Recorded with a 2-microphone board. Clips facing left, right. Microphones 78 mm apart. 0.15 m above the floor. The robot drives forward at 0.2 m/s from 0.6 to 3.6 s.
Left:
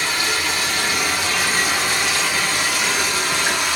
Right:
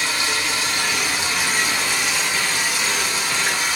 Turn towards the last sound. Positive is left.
turn(degrees=60)  # may be behind; listen again after turning